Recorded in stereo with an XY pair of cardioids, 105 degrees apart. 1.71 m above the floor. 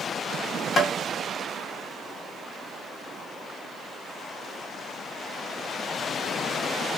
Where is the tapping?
55° left, 0.8 m.